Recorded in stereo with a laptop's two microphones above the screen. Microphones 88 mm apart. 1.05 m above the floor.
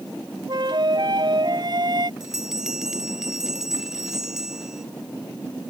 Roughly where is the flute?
Right.